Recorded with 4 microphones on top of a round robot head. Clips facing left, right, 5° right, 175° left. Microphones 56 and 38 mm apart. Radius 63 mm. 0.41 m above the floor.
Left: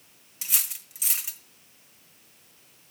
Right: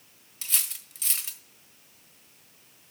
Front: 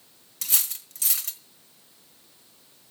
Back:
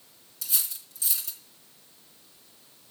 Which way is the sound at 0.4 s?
10° left.